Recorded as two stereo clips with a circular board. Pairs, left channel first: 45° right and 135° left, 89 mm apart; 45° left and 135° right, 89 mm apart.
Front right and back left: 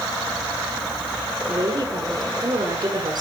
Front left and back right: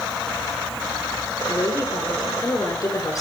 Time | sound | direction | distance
1.5 | a woman speaking | 95° left | 7.5 m